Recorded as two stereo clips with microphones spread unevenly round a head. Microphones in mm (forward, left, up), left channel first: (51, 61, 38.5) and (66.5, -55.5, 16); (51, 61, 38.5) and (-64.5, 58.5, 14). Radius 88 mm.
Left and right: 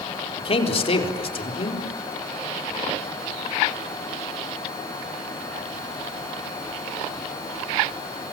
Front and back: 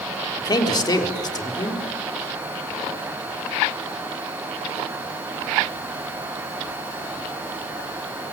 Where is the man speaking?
60° left, 4 m.